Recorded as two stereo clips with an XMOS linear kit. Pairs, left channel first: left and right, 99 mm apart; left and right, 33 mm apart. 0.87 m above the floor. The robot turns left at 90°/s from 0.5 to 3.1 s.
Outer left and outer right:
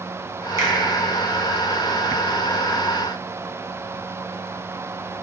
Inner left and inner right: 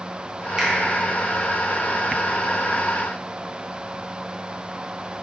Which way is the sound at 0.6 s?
30° right (ahead or behind).